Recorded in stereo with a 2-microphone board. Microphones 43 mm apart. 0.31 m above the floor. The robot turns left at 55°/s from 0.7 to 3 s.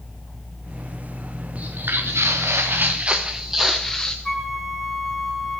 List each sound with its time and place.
1.6 s footsteps: 30° right (ahead or behind), 2 m; by 4.2 s 15° left (ahead or behind), 1.3 m
4.2 s a flute: 5° left (ahead or behind), 1.3 m